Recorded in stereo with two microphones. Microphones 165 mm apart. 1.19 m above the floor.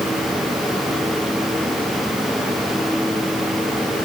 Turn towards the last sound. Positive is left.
No sound to turn to.